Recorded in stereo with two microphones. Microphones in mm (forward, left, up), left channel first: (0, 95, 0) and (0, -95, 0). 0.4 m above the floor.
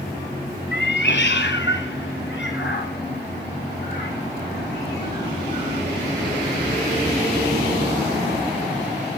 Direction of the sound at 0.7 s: 65° left (ahead or behind).